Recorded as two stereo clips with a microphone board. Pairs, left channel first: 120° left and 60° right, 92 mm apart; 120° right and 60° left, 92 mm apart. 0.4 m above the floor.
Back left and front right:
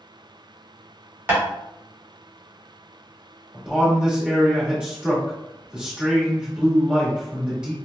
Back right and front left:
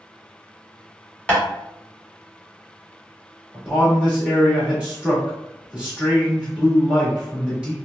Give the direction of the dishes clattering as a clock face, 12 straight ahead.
No dishes clattering in this recording.